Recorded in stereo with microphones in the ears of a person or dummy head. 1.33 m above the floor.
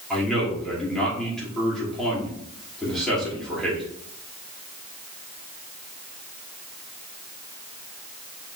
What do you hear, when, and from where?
0.1 s a man speaking: centre (ahead or behind), 2.5 m